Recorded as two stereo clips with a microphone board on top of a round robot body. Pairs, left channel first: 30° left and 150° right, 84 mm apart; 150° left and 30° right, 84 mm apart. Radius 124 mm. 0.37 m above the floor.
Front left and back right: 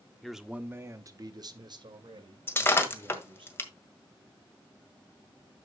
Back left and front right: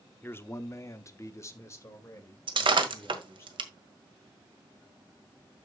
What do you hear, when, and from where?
0.2 s a man speaking: 115° left, 1.1 m; by 3.5 s 150° right, 3.5 m
2.5 s breaking glass: 30° right, 1.7 m